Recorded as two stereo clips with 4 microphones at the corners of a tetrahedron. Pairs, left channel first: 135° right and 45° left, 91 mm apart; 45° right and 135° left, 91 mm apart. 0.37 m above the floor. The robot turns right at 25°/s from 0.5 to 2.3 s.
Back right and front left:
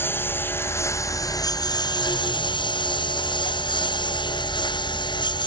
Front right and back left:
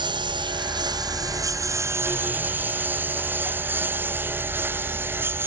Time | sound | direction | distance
0.0 | a lawn mower | 160° left | ?